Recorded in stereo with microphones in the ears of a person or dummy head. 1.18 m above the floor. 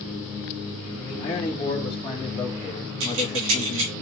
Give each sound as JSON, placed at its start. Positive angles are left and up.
{"t": 1.0, "sound": "a man speaking", "side_deg": 5, "distance_m": 2.5}
{"t": 3.0, "sound": "keys jangling", "side_deg": -75, "distance_m": 4.0}